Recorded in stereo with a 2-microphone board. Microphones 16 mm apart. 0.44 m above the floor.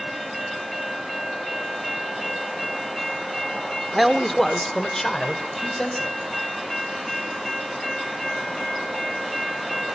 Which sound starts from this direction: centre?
A man speaking, at 3.9 s.